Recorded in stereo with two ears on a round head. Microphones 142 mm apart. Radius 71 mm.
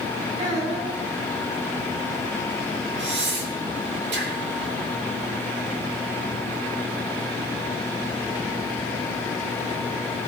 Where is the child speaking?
40° right (ahead or behind), 7.5 m.